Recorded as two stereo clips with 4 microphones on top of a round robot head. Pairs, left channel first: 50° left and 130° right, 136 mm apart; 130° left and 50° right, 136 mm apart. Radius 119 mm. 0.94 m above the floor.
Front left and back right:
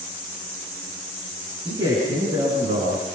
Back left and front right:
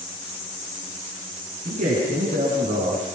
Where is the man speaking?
75° right, 9.5 m; by 3.0 s 85° right, 8.5 m.